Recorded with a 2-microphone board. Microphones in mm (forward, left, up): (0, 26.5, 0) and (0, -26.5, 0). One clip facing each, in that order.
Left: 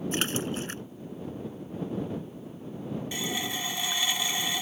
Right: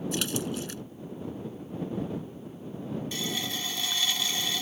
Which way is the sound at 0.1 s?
40° left (ahead or behind).